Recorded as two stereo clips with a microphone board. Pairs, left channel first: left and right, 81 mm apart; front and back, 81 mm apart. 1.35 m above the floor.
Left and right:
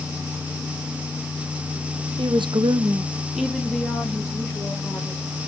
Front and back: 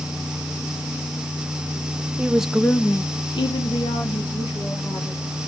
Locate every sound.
2.2 s a woman speaking: 105° right, 0.9 m; by 5.2 s 25° left, 2.5 m